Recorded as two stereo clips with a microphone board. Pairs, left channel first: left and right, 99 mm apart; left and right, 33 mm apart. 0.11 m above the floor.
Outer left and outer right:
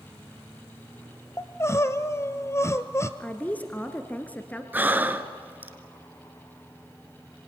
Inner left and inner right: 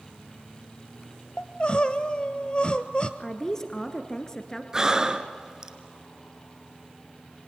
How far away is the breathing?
About 1.2 m.